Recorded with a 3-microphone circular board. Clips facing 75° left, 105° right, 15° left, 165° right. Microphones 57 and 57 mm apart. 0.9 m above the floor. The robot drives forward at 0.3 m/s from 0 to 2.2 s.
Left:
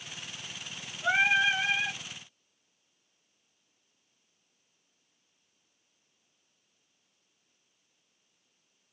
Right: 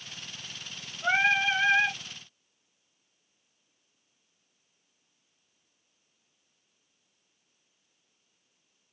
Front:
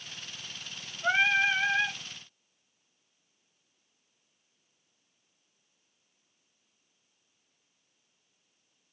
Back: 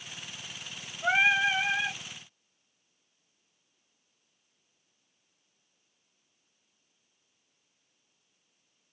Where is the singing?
165° right, 1.6 m; by 2.0 s 170° right, 1.8 m.